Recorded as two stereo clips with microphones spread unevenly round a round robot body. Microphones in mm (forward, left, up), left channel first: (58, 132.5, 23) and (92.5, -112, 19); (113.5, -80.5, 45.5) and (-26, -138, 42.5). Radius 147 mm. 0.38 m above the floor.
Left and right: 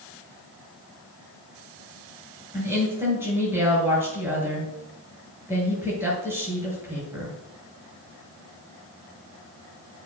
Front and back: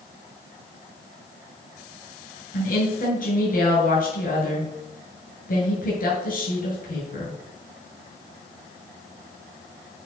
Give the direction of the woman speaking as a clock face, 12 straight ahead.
12 o'clock.